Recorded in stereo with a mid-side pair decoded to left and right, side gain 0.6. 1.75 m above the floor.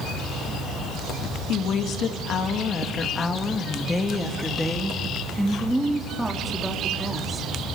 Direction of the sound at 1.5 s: 60° left.